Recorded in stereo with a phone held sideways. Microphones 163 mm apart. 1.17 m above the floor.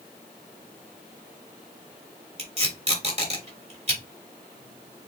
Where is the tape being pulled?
40° right (ahead or behind), 2.5 m.